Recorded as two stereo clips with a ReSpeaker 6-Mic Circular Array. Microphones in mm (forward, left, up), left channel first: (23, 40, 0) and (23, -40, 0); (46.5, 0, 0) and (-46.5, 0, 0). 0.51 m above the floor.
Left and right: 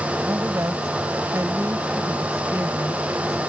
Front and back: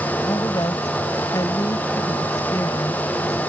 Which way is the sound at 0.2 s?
45° right.